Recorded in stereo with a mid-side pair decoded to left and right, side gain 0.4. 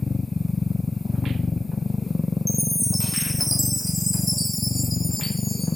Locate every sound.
0.0 s a machine running: 25° left, 0.8 m
2.5 s a chime: 5° left, 1.4 m